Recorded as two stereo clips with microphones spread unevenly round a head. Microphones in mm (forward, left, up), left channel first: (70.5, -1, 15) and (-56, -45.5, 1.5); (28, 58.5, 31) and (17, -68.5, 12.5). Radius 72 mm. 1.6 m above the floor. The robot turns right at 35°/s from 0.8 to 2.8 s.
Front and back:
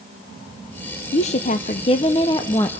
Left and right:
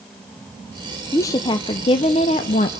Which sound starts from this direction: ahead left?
A woman speaking, at 1.1 s.